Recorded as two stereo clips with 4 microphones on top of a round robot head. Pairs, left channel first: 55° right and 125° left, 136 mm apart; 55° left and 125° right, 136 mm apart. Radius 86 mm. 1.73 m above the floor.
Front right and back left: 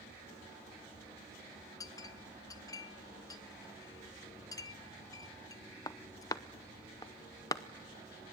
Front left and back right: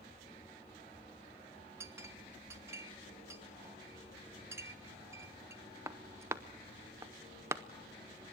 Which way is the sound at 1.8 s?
80° right.